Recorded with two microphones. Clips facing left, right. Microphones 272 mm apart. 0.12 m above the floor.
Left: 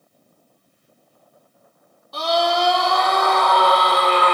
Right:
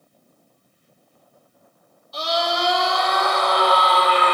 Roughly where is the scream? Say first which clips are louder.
Left 4 dB; left.